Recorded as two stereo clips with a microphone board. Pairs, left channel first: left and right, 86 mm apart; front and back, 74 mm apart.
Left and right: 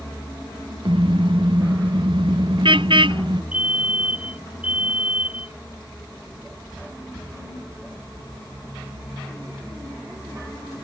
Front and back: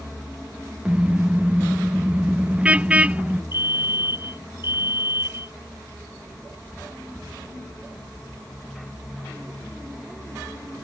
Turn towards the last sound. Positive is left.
turn(degrees=-15)